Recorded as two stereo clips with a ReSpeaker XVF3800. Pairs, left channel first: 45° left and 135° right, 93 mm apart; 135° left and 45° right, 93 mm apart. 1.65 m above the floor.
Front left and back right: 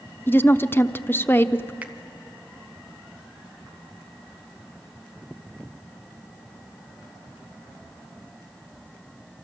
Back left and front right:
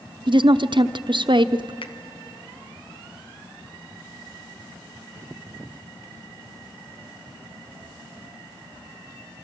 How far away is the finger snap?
About 1.4 m.